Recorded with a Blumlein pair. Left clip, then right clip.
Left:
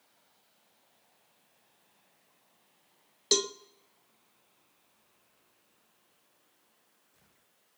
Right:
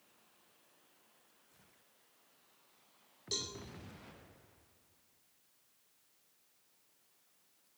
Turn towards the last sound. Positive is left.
turn(degrees=35)